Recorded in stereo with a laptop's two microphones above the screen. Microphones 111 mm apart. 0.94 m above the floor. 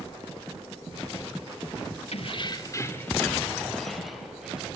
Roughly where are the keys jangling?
Left.